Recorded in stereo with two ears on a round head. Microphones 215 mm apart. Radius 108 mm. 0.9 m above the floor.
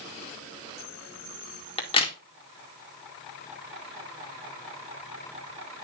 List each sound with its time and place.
1.8 s a crack: 25° left (ahead or behind), 2 m